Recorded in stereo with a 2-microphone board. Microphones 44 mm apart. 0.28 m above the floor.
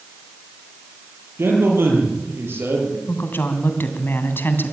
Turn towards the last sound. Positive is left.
turn(degrees=55)  # may be behind; listen again after turning